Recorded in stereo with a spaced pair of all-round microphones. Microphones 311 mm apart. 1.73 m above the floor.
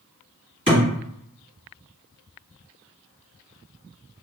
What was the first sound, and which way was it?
A thud, 25° right (ahead or behind).